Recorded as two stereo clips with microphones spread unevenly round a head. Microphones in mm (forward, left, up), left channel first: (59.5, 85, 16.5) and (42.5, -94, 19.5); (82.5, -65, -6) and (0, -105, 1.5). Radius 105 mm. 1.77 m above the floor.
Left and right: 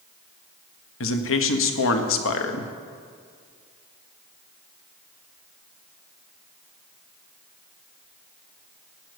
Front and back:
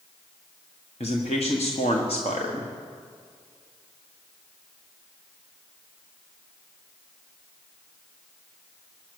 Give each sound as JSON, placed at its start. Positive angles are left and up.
{"t": 1.0, "sound": "a man speaking", "azimuth_deg": 85, "distance_m": 1.4}